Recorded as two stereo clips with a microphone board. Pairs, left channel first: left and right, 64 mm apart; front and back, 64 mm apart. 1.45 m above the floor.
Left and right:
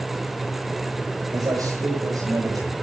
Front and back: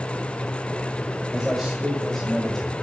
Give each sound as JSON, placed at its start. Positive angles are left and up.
{"t": 1.3, "sound": "a man speaking", "azimuth_deg": -95, "distance_m": 6.0}